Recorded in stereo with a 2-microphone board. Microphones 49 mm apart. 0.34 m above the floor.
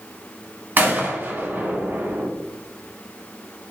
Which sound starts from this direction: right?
A gunshot, at 0.8 s.